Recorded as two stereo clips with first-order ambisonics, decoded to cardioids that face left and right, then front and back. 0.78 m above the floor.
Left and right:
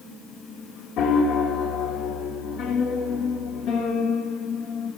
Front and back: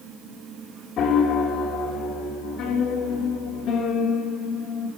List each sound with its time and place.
1.0 s a piano: 50° left, 1.2 m